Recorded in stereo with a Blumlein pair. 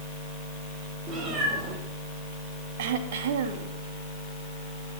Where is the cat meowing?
30° right, 9 m.